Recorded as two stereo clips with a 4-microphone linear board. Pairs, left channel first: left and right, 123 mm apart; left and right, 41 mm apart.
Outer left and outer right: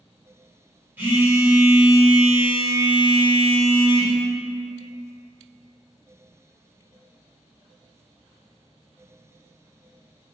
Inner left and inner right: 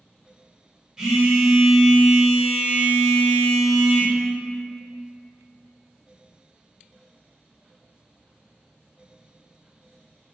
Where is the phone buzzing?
15° right (ahead or behind), 1.2 m.